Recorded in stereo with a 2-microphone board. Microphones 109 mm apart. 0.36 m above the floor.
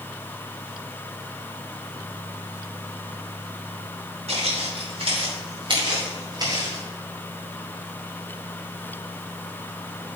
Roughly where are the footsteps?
Right.